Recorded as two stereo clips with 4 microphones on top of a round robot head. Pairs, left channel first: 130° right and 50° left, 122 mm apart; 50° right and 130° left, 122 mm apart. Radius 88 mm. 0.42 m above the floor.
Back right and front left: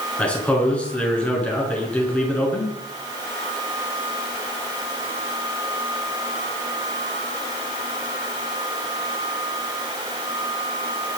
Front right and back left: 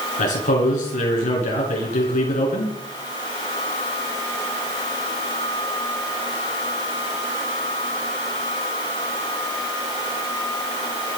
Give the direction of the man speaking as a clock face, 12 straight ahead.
2 o'clock.